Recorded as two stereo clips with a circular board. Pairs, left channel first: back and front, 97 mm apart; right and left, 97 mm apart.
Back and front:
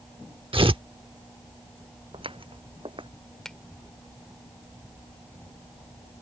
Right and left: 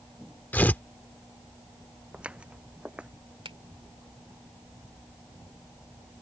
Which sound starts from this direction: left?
A finger snap, at 3.5 s.